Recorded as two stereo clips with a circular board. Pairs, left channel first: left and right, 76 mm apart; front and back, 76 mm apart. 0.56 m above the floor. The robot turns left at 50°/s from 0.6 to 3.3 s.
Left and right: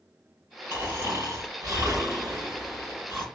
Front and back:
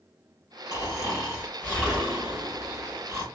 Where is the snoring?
30° right, 2.0 m; by 3.2 s 155° right, 2.0 m.